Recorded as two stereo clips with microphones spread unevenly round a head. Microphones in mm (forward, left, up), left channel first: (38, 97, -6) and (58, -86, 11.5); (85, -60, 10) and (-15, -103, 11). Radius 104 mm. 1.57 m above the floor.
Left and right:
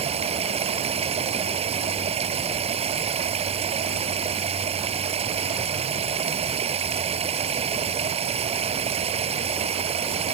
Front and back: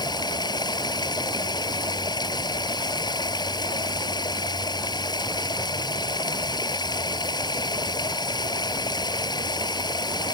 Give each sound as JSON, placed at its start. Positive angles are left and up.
{"t": 0.0, "sound": "running water", "azimuth_deg": -25}